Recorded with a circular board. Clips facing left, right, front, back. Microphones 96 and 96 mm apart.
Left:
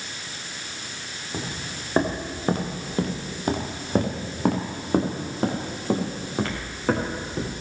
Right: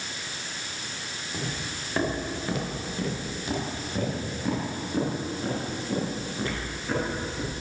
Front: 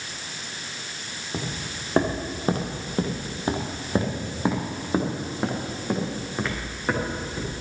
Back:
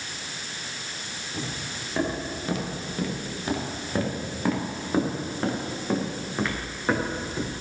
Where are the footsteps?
30° left, 3.5 m; by 7.6 s 95° left, 5.5 m.